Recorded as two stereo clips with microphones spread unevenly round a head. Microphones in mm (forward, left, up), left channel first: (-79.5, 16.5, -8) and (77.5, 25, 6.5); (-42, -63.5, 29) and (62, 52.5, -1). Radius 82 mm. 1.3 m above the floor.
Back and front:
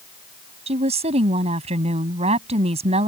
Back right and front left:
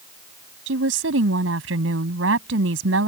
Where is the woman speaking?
55° left.